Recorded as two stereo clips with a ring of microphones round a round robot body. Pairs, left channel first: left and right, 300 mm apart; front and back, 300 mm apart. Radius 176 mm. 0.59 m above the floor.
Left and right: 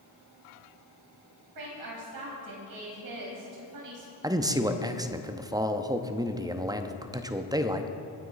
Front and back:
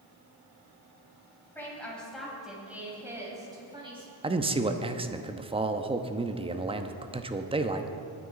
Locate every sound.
1.6 s a woman speaking: 85° right, 4.5 m; by 4.1 s 110° right, 5 m
4.2 s a man speaking: 145° right, 0.9 m